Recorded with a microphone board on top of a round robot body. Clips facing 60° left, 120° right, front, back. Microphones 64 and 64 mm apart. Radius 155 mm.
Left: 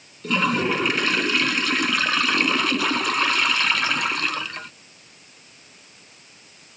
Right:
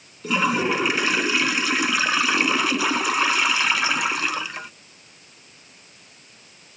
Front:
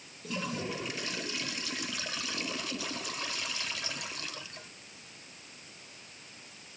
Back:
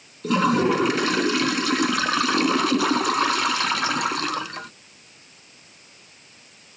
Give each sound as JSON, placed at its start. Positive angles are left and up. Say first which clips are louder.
{"t": 0.2, "sound": "a toilet flushing", "louder": "even, back 17 dB", "azimuth_deg": 155}